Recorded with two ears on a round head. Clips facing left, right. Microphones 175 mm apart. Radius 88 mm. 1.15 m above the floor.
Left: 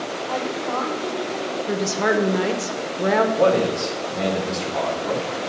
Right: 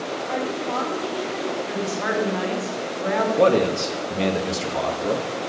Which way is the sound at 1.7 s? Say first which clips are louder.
Left 4 dB; 55° left (ahead or behind).